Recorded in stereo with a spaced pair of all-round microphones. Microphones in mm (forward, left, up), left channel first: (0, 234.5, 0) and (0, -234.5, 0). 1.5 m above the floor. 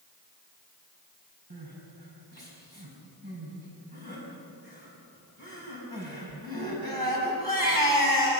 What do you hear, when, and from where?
1.5 s crying: 50° right (ahead or behind), 4.5 m